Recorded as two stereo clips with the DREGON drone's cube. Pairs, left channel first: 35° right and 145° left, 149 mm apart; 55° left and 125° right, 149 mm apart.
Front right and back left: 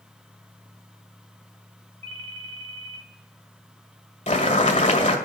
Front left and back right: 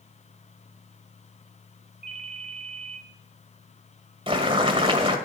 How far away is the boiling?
About 1.8 m.